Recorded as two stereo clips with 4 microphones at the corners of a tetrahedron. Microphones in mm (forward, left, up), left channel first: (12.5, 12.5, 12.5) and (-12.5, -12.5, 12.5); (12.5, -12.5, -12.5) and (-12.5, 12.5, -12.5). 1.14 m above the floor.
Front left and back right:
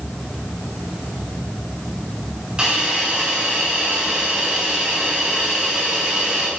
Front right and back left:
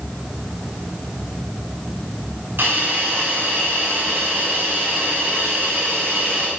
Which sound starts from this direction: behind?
A hiss, at 2.6 s.